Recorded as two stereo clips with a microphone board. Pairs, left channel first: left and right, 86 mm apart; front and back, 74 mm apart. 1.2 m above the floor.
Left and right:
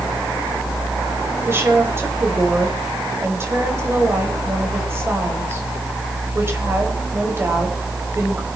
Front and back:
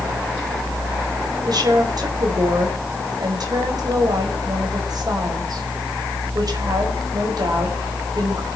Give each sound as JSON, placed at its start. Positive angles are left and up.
{"t": 1.5, "sound": "a woman speaking", "azimuth_deg": -150, "distance_m": 5.0}